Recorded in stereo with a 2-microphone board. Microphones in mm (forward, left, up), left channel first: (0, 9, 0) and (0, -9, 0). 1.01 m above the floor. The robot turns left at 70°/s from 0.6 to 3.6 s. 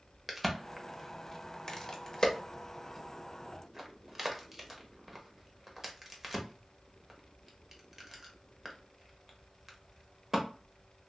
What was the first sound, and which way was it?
A crack, centre (ahead or behind).